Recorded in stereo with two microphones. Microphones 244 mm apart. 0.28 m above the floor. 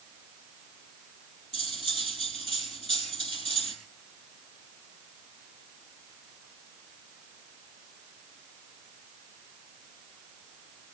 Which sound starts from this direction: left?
Cutlery clinking, at 1.5 s.